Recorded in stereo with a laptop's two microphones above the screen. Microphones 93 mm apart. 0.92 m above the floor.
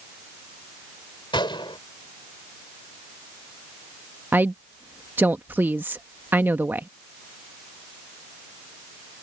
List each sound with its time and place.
1.3 s a gunshot: 60° left (ahead or behind)
4.3 s a woman speaking: 20° right (ahead or behind)